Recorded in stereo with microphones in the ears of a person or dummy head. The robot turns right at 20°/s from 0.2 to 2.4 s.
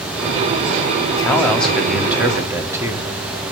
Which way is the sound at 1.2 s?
10° left (ahead or behind).